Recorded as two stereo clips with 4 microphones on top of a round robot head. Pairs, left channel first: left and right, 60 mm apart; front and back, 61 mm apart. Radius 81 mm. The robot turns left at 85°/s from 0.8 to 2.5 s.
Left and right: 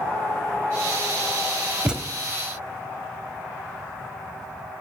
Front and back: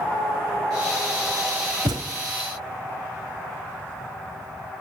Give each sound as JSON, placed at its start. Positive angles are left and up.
{"t": 1.9, "sound": "a thud", "azimuth_deg": -165, "distance_m": 0.7}